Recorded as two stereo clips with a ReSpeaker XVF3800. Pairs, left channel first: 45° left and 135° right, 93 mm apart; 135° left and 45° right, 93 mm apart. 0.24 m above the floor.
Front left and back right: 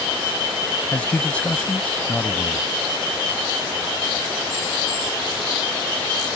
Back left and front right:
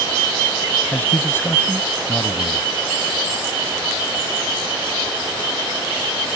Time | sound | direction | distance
0.9 | a man speaking | 105° left | ?